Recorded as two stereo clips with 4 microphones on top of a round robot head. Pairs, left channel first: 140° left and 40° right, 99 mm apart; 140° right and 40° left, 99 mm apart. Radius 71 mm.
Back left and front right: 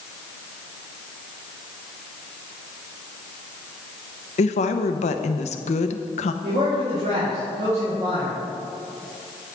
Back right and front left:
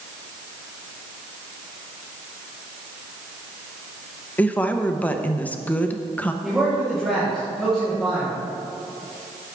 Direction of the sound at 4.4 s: 145° left.